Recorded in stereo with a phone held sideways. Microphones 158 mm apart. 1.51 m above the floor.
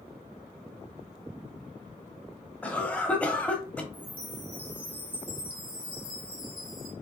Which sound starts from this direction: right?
A chime, at 3.9 s.